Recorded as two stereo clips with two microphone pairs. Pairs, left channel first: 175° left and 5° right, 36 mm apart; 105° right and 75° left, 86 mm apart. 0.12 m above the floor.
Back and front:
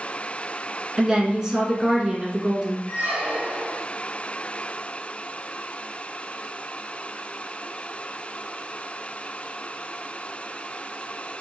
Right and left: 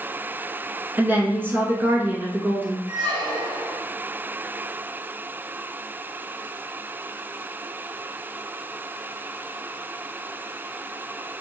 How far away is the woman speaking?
About 1.1 m.